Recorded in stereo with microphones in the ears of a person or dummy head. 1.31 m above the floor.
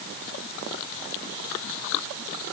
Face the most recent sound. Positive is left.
No sound to turn to.